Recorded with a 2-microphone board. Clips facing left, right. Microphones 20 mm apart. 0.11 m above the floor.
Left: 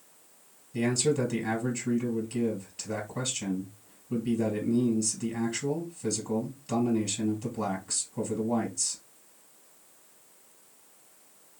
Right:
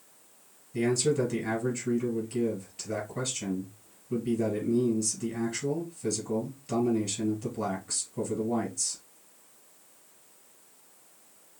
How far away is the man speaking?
About 2.5 m.